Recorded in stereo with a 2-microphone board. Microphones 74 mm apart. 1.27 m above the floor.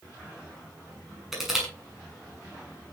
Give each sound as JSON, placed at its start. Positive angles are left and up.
{"t": 1.3, "sound": "crushing", "side_deg": -5, "distance_m": 7.0}